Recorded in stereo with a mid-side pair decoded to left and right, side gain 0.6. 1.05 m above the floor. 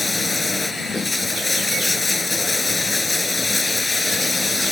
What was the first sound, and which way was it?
Running water, 15° left.